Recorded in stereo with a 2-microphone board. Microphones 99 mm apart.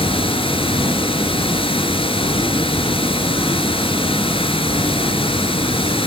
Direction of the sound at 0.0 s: 65° left (ahead or behind).